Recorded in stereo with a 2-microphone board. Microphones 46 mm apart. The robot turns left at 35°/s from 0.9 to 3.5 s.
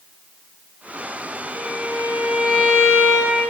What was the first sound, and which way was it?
A violin, 125° right.